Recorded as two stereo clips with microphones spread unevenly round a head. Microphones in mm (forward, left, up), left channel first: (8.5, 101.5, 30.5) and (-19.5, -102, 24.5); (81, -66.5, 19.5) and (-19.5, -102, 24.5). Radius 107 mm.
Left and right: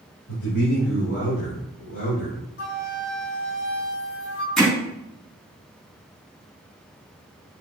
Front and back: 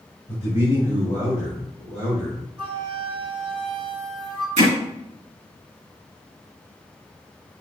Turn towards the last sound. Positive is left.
turn(degrees=170)